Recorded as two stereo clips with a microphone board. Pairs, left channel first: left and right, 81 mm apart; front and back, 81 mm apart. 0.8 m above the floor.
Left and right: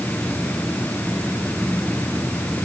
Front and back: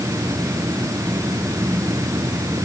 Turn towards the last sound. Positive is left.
No sound to turn to.